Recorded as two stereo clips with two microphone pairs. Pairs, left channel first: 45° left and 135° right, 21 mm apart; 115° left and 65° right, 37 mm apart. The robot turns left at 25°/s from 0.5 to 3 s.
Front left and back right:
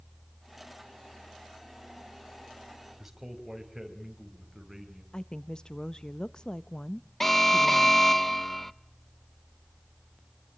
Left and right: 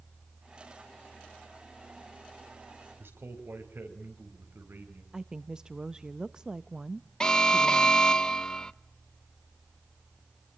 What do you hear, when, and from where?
3.0 s a man speaking: 50° right, 5 m; by 5.0 s 55° right, 5 m
5.1 s a woman speaking: 5° left, 0.6 m
7.2 s an alarm: 95° left, 0.7 m